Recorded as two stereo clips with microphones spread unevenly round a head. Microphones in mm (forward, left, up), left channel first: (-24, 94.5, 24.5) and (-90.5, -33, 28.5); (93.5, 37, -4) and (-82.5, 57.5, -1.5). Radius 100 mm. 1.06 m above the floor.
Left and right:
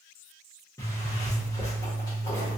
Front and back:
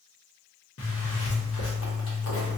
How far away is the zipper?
About 0.9 m.